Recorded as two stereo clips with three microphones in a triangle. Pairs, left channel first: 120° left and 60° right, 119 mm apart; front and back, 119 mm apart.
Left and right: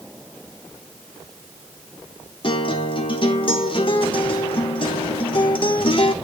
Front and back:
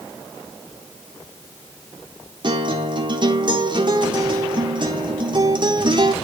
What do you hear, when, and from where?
2.4 s a guitar: 145° left, 1.2 m